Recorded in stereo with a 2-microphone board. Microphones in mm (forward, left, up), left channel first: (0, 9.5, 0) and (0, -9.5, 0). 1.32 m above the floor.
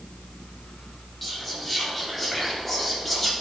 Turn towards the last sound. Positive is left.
turn(degrees=10)  # may be behind; listen again after turning